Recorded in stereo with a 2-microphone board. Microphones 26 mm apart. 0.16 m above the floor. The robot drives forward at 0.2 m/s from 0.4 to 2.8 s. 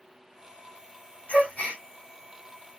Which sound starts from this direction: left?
A gasp, at 1.3 s.